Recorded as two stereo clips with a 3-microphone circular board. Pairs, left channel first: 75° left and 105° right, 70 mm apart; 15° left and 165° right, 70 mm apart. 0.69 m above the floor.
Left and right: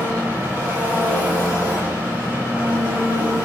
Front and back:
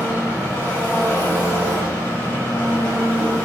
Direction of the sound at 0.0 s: 45° right.